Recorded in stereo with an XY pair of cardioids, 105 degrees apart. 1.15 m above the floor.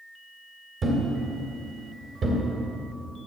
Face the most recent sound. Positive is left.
turn(degrees=-45)